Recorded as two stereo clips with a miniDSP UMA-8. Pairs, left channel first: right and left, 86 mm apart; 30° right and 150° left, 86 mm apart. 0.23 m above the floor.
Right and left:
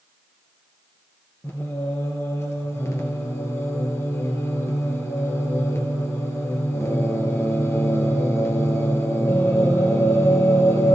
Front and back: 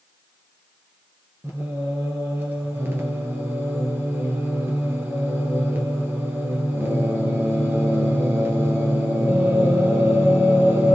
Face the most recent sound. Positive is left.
turn(degrees=-150)